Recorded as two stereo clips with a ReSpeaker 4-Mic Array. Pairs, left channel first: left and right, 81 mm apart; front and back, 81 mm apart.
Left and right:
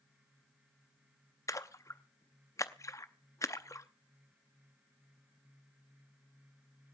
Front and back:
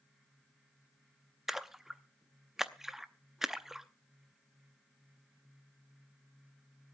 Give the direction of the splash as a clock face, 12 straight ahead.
9 o'clock.